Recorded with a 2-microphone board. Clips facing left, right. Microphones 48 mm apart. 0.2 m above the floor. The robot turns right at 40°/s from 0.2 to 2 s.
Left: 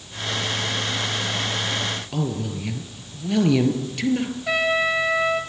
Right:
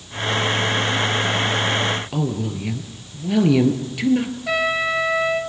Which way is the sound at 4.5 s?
Centre (ahead or behind).